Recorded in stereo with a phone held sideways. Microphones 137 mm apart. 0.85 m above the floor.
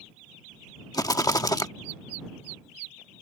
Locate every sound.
0.9 s a rattle: 25° left (ahead or behind)